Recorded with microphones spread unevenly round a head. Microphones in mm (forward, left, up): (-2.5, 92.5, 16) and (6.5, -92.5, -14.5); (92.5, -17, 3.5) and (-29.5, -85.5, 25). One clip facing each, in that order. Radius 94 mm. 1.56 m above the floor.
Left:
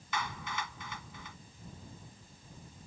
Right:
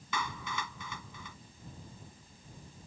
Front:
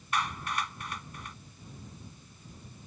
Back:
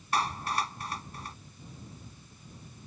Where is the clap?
95° right.